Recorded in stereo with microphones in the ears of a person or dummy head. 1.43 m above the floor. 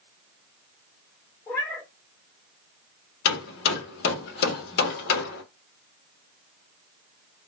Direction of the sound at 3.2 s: 55° left (ahead or behind).